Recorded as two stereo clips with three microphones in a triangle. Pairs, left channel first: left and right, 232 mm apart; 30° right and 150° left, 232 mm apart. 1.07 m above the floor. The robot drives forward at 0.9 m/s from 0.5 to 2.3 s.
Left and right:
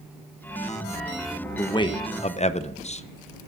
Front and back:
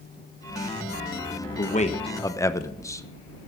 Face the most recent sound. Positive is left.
turn(degrees=40)